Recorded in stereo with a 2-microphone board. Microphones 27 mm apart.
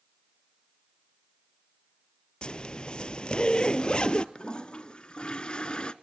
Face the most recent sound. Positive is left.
turn(degrees=40)  # may be behind; listen again after turning